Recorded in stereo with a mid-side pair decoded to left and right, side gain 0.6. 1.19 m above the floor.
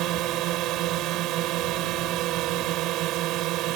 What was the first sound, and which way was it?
A drone, 65° right.